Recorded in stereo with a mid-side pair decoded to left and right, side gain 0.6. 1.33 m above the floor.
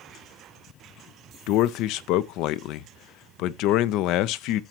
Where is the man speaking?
70° left, 0.6 m.